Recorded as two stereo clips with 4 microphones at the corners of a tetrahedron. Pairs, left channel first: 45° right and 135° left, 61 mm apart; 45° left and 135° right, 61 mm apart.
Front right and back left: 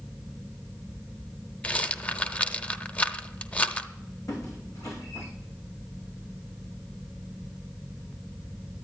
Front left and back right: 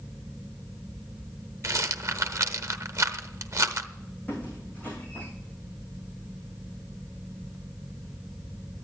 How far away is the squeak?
About 4.5 m.